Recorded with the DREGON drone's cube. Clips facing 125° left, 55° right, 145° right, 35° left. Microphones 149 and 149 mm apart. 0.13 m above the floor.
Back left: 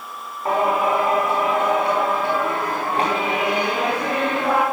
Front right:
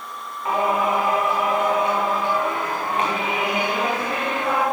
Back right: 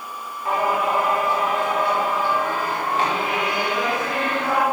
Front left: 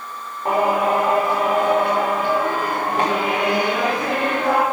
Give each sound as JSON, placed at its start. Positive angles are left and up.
{"t": 0.5, "sound": "singing", "azimuth_deg": 70, "distance_m": 6.0}